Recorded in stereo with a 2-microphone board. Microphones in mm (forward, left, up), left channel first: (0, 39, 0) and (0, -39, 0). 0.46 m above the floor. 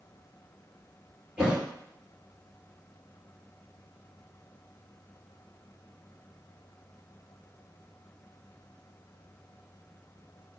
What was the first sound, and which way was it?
A thud, 10° right (ahead or behind).